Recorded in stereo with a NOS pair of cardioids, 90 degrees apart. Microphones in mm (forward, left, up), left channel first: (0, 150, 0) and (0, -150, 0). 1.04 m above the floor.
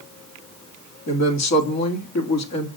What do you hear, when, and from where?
1.1 s a woman speaking: 60° left, 2.5 m